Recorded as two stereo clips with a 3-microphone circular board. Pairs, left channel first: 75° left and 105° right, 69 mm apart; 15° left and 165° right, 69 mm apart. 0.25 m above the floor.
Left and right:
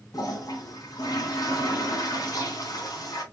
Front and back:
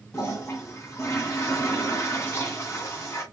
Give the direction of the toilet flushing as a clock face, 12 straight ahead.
10 o'clock.